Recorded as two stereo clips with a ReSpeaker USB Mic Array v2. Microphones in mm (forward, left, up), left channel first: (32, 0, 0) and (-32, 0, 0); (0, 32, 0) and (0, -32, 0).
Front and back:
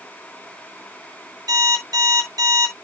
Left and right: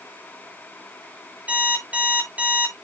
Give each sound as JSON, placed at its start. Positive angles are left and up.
{"t": 1.5, "sound": "an alarm clock", "azimuth_deg": -160, "distance_m": 9.0}